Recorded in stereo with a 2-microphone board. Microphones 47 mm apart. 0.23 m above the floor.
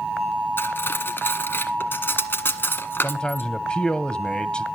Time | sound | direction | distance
0.6 | cutlery clinking | 50° left (ahead or behind) | 1.4 m
3.0 | a man speaking | 20° left (ahead or behind) | 1.0 m